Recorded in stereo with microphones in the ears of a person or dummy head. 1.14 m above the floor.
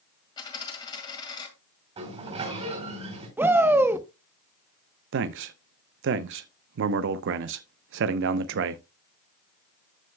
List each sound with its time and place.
0.4 s a dropped coin: 25° left (ahead or behind), 2 m
2.0 s a sliding door: 35° right (ahead or behind), 4.5 m
3.4 s a shout: 15° right (ahead or behind), 1.0 m
5.1 s a man speaking: 60° right (ahead or behind), 0.6 m